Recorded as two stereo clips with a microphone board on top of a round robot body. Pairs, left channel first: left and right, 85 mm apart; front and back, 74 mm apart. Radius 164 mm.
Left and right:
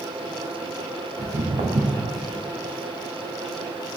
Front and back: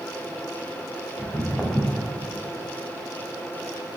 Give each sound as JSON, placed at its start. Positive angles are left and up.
{"t": 1.2, "sound": "footsteps", "azimuth_deg": -65, "distance_m": 1.0}